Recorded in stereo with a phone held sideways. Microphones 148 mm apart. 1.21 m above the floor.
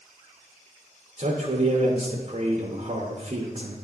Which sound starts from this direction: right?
A man speaking, at 1.2 s.